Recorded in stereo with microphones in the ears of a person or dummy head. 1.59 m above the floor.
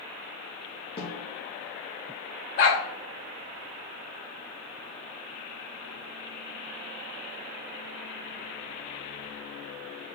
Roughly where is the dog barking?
Left.